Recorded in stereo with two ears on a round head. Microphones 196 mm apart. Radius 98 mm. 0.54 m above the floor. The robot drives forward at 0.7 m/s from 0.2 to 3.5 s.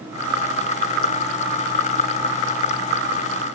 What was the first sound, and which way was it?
Only background noise.